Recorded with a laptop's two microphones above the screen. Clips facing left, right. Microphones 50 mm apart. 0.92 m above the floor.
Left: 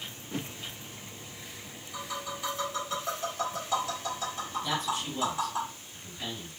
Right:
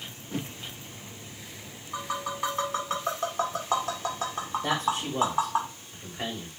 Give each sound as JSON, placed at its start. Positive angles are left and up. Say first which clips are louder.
{"t": 1.9, "sound": "tapping", "louder": "right 5 dB", "side_deg": -60, "distance_m": 2.0}
{"t": 4.6, "sound": "a man speaking", "louder": "right 4 dB", "side_deg": -80, "distance_m": 3.0}